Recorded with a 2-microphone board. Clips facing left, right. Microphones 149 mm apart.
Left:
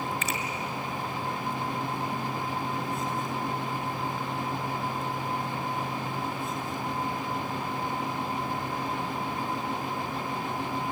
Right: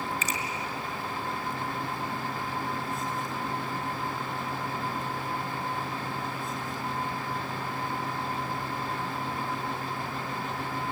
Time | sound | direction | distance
0.2 | a finger snap | 60° left (ahead or behind) | 3 m